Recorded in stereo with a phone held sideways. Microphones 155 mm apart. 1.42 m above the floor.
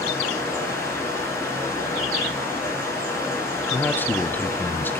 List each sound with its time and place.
0.0 s running water: 15° left (ahead or behind), 5.5 m
3.7 s a man speaking: 10° left (ahead or behind), 0.7 m